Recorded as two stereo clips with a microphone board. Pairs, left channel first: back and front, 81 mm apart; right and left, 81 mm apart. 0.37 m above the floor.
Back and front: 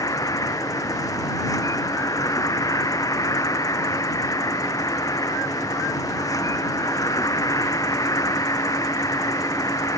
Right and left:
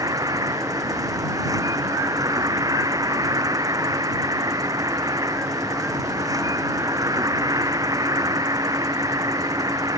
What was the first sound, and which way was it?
An insect, 135° left.